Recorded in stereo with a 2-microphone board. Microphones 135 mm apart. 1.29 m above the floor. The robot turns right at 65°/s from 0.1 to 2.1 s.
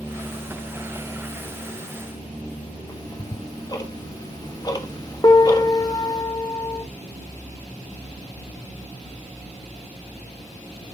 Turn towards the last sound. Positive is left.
turn(degrees=25)  # may be behind; listen again after turning